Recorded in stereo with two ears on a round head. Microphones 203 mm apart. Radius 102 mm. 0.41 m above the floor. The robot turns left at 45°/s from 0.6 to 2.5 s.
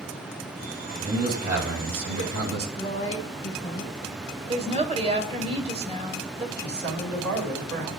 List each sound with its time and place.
1.0 s a man speaking: 30° right, 4 m; by 2.7 s 100° right, 4 m
2.8 s a woman speaking: 25° left (ahead or behind), 2.5 m
4.5 s a woman speaking: 30° right (ahead or behind), 1.6 m
6.6 s a man speaking: 45° right (ahead or behind), 3 m